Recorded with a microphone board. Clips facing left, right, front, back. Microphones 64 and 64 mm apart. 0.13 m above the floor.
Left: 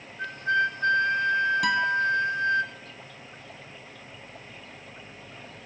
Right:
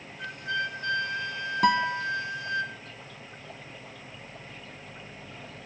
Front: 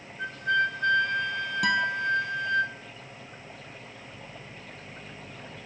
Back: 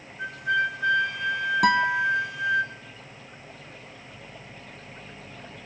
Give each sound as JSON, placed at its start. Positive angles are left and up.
{"t": 0.2, "sound": "a flute", "azimuth_deg": 100, "distance_m": 1.8}
{"t": 1.6, "sound": "a guitar", "azimuth_deg": -145, "distance_m": 0.9}